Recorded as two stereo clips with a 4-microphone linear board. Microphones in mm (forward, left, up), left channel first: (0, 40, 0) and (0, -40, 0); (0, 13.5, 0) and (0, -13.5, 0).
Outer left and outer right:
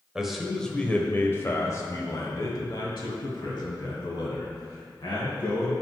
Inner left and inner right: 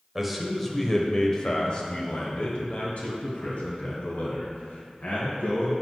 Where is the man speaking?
10° right (ahead or behind), 1.0 m; by 5.7 s 75° left (ahead or behind), 3 m.